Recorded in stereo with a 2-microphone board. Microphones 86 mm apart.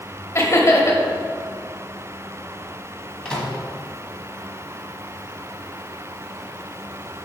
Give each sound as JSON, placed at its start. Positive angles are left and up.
{"t": 0.3, "sound": "laughter", "side_deg": 35, "distance_m": 1.0}
{"t": 3.2, "sound": "a microwave", "side_deg": 10, "distance_m": 1.6}